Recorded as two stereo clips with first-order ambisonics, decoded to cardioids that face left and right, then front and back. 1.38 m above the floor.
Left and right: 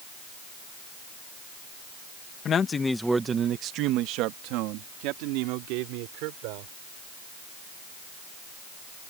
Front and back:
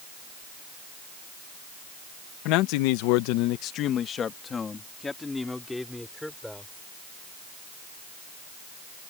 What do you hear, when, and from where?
2.5 s a man speaking: 30° left; by 6.7 s 90° right